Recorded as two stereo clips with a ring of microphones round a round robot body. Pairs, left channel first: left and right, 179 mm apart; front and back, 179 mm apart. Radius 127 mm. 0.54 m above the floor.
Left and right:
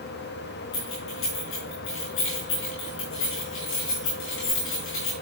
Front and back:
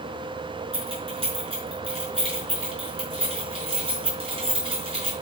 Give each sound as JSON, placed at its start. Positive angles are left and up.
{"t": 0.7, "sound": "keys jangling", "azimuth_deg": 120, "distance_m": 6.0}